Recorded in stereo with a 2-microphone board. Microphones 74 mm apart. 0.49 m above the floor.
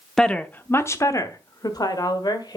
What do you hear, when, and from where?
0.2 s a woman speaking: 5° left (ahead or behind), 0.7 m; by 2.6 s 65° left (ahead or behind), 1.7 m